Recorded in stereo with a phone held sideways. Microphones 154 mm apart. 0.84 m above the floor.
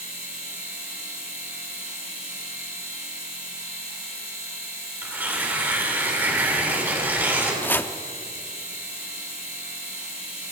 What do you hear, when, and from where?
0.0 s a machine running: 75° left (ahead or behind), 8.5 m
5.0 s tearing paper: 15° right (ahead or behind), 7 m
7.6 s chopping: 15° left (ahead or behind), 0.8 m